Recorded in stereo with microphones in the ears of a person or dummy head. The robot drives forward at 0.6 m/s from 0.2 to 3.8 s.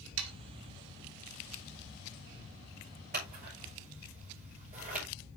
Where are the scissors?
45° right (ahead or behind), 3 m; by 5.0 s 40° right (ahead or behind), 3 m.